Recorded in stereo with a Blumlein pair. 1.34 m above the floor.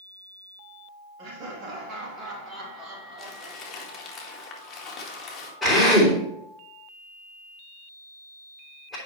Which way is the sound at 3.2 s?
20° left.